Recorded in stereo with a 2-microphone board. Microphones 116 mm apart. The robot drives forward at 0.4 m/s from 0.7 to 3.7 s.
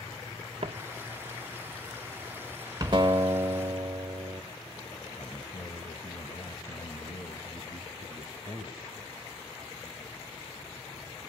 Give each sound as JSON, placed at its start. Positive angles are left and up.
{"t": 0.6, "sound": "footsteps", "side_deg": -60, "distance_m": 1.8}
{"t": 2.9, "sound": "a guitar", "side_deg": -40, "distance_m": 1.4}
{"t": 5.2, "sound": "a man speaking", "side_deg": 30, "distance_m": 2.0}